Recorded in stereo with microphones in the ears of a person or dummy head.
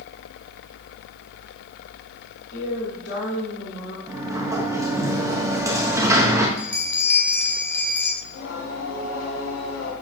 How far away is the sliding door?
About 1.6 m.